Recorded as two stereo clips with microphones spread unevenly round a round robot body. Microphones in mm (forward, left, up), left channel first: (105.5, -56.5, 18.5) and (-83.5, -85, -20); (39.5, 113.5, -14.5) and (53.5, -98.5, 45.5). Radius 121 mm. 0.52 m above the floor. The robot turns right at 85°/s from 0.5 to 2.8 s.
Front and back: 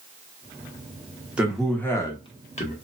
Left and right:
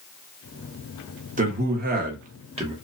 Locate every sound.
1.4 s a man speaking: 125° right, 0.7 m; by 2.7 s 10° right, 0.7 m